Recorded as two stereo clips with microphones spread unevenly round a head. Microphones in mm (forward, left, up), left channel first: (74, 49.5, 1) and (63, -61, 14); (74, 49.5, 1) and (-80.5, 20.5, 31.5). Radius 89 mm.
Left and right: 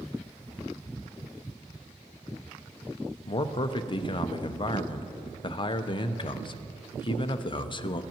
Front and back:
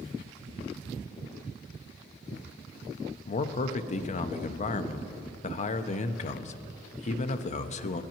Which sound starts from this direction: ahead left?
A man speaking, at 3.2 s.